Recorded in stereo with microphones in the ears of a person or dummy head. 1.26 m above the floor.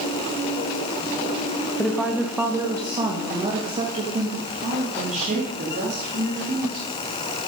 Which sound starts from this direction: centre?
A woman speaking, at 1.8 s.